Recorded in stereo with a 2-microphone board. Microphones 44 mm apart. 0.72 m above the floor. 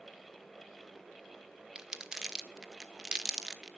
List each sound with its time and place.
1.8 s crumpling: 15° right (ahead or behind), 1.0 m